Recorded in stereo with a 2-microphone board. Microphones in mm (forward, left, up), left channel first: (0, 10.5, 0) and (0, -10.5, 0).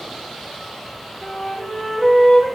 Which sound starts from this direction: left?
A flute, at 1.2 s.